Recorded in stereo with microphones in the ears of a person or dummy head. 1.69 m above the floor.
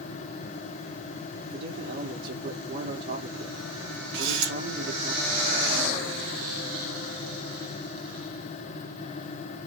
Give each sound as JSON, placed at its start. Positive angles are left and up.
{"t": 1.5, "sound": "a man speaking", "side_deg": -45, "distance_m": 1.9}
{"t": 4.1, "sound": "a camera shutter", "side_deg": -65, "distance_m": 2.0}